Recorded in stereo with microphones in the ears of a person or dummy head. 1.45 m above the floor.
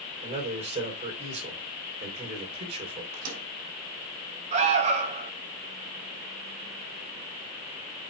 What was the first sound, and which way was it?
A man speaking, 40° right (ahead or behind).